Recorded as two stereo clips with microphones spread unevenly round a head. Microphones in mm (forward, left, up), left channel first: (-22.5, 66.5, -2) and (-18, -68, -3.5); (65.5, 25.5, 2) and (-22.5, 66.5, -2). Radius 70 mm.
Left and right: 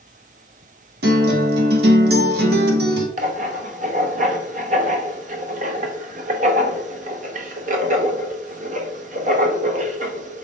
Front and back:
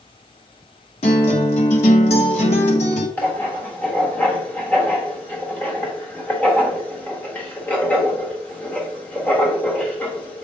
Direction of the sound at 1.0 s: 70° right.